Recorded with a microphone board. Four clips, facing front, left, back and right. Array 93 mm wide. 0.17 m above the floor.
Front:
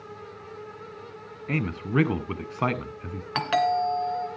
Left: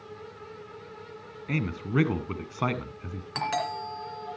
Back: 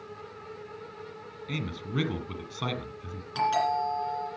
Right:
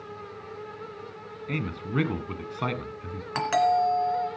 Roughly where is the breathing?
No breathing in this recording.